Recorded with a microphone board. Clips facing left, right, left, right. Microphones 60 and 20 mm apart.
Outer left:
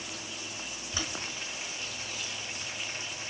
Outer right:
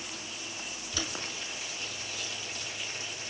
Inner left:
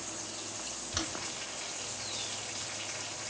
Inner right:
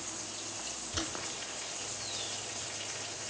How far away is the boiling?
About 3.5 m.